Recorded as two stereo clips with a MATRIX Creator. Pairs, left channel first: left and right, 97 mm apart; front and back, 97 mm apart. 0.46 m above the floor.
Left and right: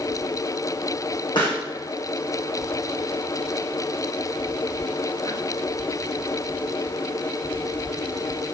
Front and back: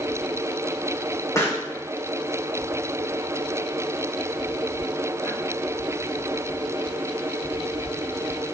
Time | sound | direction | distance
1.4 | a pop | 55° left | 4 m